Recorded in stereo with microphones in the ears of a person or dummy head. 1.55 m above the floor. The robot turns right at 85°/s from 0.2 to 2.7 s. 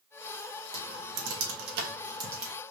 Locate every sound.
0.7 s typing on a keyboard: 30° right (ahead or behind), 1.1 m; by 2.5 s centre (ahead or behind), 1.1 m